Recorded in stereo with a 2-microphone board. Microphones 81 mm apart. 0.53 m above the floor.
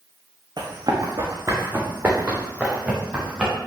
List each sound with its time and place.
0.6 s running footsteps: 55° right (ahead or behind), 2 m; by 3.5 s 5° right (ahead or behind), 4.5 m